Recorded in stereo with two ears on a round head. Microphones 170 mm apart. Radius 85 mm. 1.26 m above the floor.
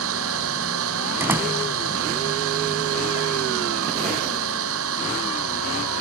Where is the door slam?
10° right (ahead or behind).